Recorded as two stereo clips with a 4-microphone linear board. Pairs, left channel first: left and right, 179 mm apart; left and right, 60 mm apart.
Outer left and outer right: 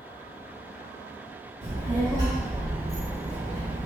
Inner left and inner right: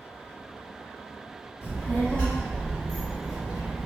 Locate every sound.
1.6 s a child speaking: 30° left (ahead or behind), 1.6 m; by 3.9 s 20° right (ahead or behind), 1.2 m